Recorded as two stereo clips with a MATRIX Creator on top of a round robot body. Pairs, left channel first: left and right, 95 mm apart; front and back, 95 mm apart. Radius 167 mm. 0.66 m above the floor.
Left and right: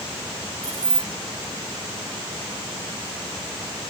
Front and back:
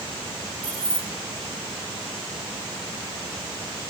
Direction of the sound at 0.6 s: 150° right.